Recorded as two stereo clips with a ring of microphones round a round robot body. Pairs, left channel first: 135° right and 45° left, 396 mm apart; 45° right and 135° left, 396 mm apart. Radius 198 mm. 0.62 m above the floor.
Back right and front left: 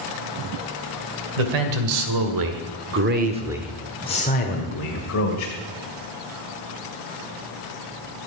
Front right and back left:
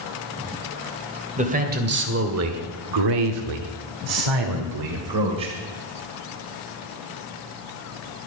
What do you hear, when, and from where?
1.4 s a man speaking: 60° left, 2.5 m; by 5.6 s straight behind, 2.5 m